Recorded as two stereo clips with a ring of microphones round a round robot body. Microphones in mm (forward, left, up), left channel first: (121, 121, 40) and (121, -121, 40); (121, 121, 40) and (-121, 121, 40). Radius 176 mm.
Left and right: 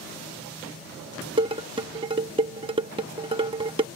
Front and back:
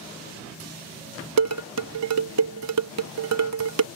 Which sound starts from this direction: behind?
Dishes clattering, at 1.4 s.